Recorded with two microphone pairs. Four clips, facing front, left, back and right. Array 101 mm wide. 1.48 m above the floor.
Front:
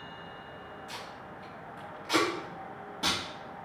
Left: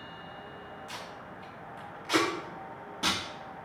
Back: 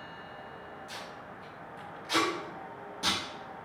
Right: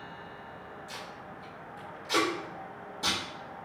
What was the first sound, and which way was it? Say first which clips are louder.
Tape being pulled: even, front 1 dB; 60° left.